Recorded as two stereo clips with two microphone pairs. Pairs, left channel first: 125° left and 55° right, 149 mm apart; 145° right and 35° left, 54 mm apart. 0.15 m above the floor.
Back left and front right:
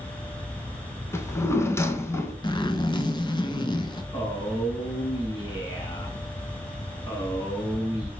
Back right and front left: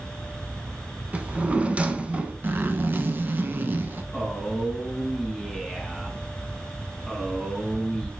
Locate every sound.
1.1 s a drawer: 70° left, 0.6 m
2.4 s a zipper: 75° left, 0.5 m
4.1 s a man speaking: 140° left, 1.1 m